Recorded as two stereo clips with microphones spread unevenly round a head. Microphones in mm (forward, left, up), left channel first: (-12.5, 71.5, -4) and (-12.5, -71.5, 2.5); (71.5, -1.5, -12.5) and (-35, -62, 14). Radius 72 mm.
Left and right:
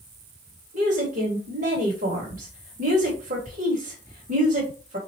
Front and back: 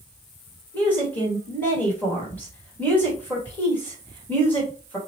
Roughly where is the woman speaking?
Ahead right.